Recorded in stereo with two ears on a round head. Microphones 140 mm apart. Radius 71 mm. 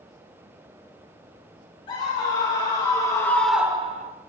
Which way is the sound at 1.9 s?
35° left (ahead or behind).